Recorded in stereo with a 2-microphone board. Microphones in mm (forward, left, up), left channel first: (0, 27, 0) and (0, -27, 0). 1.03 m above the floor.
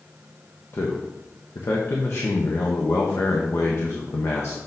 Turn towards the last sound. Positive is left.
turn(degrees=50)  # may be behind; listen again after turning